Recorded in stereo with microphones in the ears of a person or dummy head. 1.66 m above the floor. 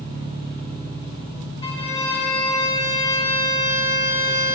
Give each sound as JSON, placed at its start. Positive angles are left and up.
{"t": 0.0, "sound": "an engine running", "side_deg": -50, "distance_m": 1.5}
{"t": 1.6, "sound": "a violin", "side_deg": 30, "distance_m": 0.8}